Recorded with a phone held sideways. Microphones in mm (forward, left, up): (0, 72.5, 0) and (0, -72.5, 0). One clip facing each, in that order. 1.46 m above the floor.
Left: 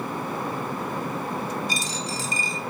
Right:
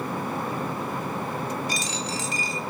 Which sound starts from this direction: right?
A dropped coin, at 1.7 s.